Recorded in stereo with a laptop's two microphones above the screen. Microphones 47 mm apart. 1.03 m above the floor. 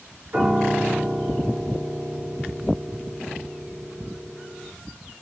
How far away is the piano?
About 1.1 m.